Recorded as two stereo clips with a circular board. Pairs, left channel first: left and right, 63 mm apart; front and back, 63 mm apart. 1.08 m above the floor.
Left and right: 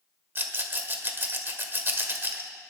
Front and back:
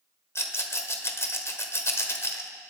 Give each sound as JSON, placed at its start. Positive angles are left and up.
{"t": 0.3, "sound": "a rattle", "azimuth_deg": -40, "distance_m": 1.5}